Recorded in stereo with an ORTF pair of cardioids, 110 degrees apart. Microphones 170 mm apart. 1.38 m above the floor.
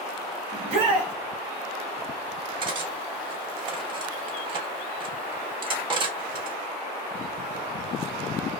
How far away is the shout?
About 1.8 m.